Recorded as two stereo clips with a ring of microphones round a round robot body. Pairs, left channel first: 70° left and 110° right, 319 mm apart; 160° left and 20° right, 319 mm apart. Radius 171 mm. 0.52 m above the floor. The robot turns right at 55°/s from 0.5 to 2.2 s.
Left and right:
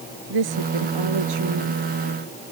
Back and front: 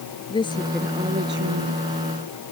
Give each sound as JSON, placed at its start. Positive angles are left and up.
{"t": 0.3, "sound": "a woman speaking", "azimuth_deg": -125}